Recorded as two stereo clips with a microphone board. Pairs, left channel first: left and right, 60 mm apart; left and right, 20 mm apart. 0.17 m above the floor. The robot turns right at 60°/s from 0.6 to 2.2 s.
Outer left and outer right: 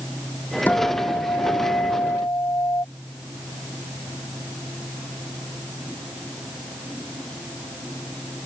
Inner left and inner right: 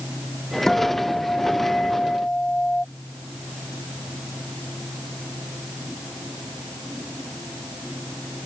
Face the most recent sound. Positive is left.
turn(degrees=120)